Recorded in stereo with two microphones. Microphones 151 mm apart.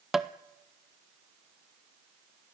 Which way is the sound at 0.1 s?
5° right (ahead or behind).